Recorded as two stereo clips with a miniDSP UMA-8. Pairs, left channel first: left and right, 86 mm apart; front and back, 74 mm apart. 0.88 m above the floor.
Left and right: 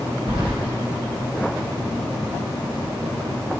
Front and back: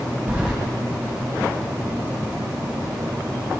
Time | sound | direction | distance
0.3 | keys jangling | 100° right | 2.5 m